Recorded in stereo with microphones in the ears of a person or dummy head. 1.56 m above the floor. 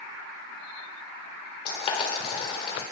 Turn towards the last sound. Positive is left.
turn(degrees=40)  # may be behind; listen again after turning